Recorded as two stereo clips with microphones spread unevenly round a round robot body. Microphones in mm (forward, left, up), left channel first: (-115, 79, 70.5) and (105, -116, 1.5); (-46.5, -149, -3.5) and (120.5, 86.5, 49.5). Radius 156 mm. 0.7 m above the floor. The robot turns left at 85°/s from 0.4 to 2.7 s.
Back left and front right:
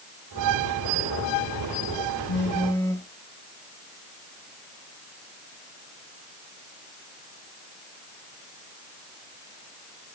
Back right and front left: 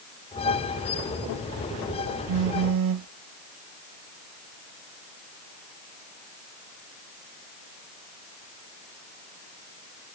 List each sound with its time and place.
2.3 s a phone buzzing: 90° left, 0.8 m; by 3.1 s 50° left, 0.8 m